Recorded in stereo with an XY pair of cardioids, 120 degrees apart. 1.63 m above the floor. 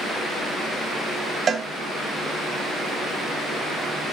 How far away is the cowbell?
About 1.4 m.